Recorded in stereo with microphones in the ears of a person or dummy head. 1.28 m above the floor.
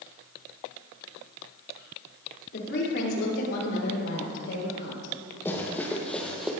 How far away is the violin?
No violin in this recording.